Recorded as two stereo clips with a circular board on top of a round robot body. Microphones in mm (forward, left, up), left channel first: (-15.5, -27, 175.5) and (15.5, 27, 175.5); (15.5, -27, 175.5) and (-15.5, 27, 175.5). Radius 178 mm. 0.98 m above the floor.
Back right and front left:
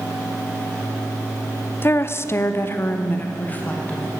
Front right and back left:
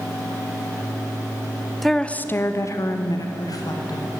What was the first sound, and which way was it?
A woman speaking, 150° right.